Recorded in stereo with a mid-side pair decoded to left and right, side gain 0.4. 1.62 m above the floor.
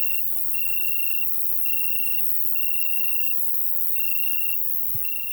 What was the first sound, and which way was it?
An insect, 15° left.